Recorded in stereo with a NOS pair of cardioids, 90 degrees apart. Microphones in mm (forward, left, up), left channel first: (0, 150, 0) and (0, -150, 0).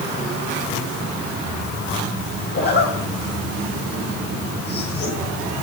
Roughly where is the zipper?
Ahead left.